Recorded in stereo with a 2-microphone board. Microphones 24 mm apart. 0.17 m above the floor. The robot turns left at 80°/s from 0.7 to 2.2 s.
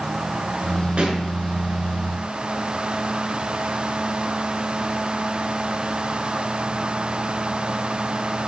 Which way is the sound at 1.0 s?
40° right (ahead or behind).